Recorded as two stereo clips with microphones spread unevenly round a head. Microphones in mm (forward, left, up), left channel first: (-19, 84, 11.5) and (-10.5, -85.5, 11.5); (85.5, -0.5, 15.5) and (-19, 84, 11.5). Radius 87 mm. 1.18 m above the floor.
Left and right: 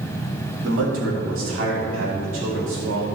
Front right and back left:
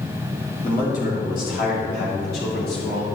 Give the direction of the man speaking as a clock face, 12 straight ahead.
3 o'clock.